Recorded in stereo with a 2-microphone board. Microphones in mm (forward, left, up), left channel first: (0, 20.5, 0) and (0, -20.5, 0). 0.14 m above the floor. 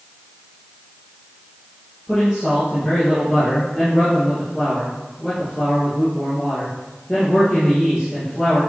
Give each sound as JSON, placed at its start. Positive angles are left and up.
{"t": 2.1, "sound": "a man speaking", "side_deg": 10, "distance_m": 3.0}